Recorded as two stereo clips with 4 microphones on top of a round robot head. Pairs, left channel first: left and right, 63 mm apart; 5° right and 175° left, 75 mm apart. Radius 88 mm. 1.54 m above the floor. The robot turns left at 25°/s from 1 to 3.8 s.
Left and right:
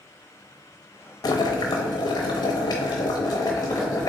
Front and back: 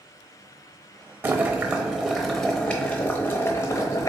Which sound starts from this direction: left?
Boiling, at 1.2 s.